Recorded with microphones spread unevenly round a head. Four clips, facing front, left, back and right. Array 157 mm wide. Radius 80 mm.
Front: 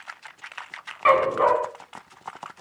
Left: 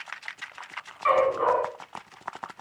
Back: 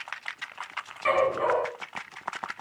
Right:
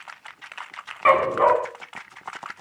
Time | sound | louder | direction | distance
1.1 | a dog barking | right 4 dB, front 5 dB | 80° right | 4 m